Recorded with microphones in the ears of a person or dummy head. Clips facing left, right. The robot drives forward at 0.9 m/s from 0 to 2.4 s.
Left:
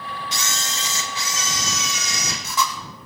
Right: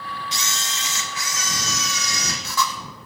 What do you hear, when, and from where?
0.3 s a camera shutter: 55° left (ahead or behind), 0.7 m; by 2.7 s 15° left (ahead or behind), 2 m